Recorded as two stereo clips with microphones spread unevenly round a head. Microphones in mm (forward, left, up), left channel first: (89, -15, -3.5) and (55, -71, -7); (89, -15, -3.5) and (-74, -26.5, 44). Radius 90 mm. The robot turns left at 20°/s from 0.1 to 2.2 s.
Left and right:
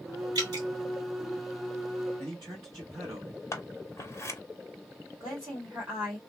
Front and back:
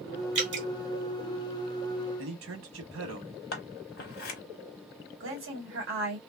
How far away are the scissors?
About 1.0 m.